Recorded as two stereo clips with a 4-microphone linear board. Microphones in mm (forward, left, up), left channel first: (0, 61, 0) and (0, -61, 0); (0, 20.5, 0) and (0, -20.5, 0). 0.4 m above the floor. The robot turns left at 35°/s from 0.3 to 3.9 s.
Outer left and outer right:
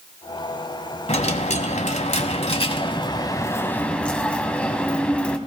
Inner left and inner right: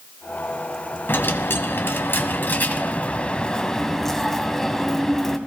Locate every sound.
1.1 s a dropped coin: 110° left, 1.3 m; by 5.4 s 10° left, 1.3 m